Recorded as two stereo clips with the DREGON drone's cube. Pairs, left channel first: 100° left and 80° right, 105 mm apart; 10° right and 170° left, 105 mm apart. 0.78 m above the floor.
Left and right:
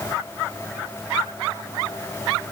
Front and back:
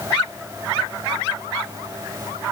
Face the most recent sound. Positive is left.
No sound to turn to.